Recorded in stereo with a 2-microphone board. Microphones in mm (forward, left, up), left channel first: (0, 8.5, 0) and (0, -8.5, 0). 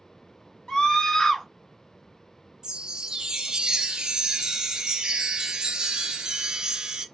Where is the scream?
50° left (ahead or behind), 1.1 m.